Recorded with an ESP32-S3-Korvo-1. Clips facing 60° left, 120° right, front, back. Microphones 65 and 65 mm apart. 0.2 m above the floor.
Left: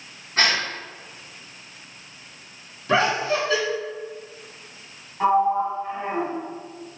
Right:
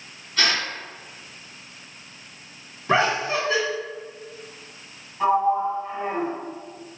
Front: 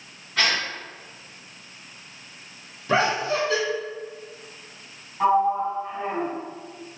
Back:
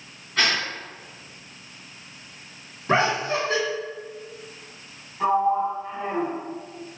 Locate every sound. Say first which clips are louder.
0.4 s a gasp: left 2 dB, even; 85° left, 1.0 m
2.9 s laughter: even, even; 155° right, 1.6 m
5.2 s a sliding door: left 1 dB, front 1 dB; straight ahead, 1.9 m